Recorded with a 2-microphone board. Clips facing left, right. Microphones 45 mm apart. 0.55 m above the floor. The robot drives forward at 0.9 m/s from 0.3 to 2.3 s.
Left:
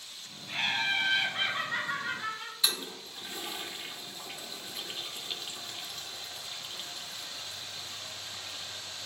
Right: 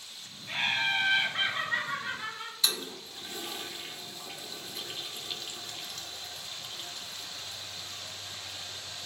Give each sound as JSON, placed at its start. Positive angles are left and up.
{"t": 0.5, "sound": "laughter", "side_deg": -45, "distance_m": 1.5}
{"t": 2.6, "sound": "a toilet flushing", "side_deg": 10, "distance_m": 0.5}